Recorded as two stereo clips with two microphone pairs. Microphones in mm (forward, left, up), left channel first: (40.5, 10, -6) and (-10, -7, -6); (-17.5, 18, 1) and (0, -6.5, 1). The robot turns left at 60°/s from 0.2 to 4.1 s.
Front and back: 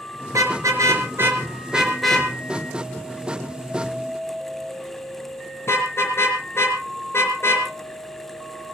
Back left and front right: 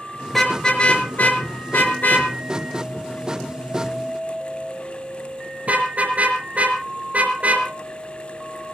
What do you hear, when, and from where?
0.3 s a car horn: 150° right, 4.5 m; by 7.7 s 20° right, 4.5 m